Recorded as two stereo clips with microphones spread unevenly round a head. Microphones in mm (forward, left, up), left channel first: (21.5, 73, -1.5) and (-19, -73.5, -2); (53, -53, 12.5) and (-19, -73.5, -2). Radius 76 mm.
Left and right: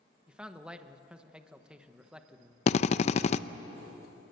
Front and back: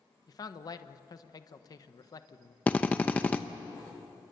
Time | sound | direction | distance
0.3 | a man speaking | 20° right | 1.2 m
2.7 | a drill | 65° left | 0.6 m